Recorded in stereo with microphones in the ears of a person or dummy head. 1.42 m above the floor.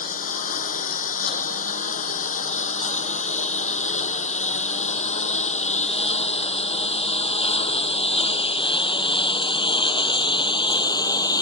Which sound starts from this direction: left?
A lawn mower, at 0.0 s.